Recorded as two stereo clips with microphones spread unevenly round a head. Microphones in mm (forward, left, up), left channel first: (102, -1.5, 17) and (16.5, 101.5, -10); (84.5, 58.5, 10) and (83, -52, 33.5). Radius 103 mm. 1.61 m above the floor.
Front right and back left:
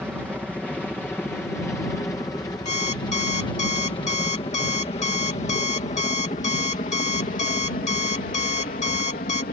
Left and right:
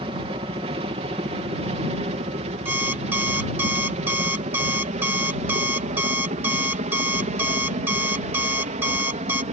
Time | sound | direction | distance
0.0 | a helicopter | 145° right | ?
2.6 | an alarm clock | 25° right | ?